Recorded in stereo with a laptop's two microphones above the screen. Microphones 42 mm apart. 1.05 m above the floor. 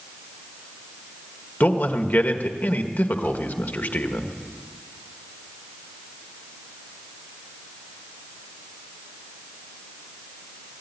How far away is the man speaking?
About 1.5 m.